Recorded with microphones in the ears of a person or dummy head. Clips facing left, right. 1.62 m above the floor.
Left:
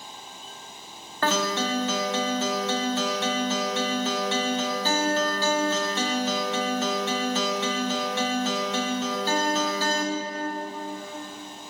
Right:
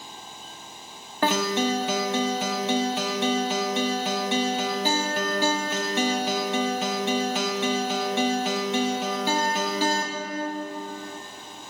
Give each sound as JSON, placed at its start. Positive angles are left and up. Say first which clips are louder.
{"t": 1.2, "sound": "a guitar", "louder": "right 2 dB", "side_deg": -15, "distance_m": 1.1}